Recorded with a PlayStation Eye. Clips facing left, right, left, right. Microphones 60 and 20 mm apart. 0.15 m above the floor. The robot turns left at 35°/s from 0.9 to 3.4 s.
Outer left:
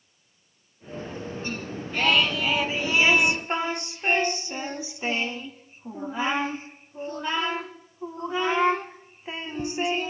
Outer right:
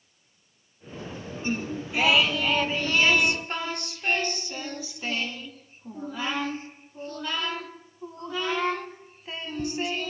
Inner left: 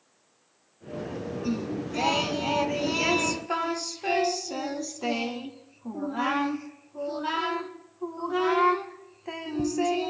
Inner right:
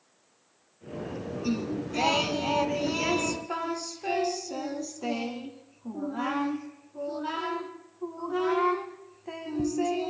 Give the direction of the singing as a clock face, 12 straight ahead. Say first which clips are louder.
Outer right 3 dB, inner right 1 dB; 5 o'clock.